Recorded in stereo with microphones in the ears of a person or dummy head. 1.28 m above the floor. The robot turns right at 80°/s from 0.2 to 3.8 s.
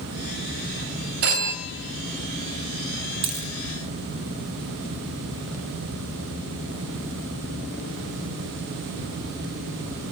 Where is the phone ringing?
80° right, 2 m; by 1.5 s 55° right (ahead or behind), 2 m.